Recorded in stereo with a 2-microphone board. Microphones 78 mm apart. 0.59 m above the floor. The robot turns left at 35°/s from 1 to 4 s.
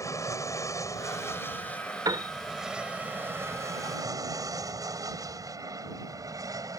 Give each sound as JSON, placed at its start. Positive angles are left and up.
{"t": 0.0, "sound": "an aircraft", "side_deg": 40}
{"t": 2.0, "sound": "a piano", "side_deg": -60}